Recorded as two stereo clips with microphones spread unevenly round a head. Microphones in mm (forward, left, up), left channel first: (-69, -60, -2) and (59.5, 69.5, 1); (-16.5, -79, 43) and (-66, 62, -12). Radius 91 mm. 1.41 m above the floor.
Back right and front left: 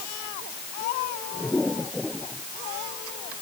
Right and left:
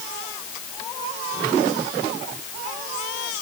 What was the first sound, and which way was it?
Only background noise.